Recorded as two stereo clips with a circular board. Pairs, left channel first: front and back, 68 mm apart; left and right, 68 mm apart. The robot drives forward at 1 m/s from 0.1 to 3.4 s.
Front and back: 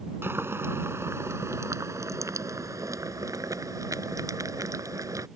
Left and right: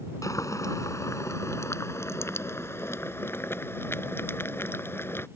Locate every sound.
0.2 s boiling: 125° left; by 5.3 s 145° left